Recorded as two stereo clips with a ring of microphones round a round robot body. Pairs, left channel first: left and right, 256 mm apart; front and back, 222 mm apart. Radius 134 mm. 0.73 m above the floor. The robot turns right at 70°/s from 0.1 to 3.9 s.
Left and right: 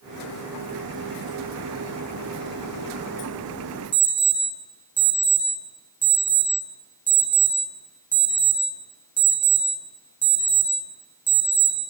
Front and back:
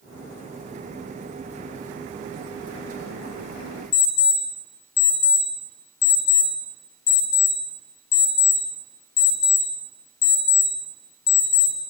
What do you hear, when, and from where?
3.9 s an alarm clock: 5° right, 2.5 m